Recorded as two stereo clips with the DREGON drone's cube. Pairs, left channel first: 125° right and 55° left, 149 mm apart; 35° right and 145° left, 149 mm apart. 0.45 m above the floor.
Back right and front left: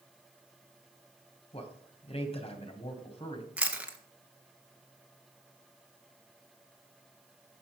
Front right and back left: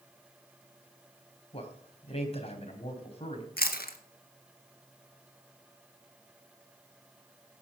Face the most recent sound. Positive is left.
turn(degrees=-25)